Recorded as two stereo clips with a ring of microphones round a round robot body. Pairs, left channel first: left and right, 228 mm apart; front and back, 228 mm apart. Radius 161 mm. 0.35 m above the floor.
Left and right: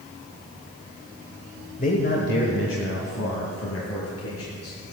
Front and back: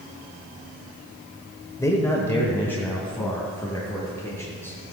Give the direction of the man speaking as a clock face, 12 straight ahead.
10 o'clock.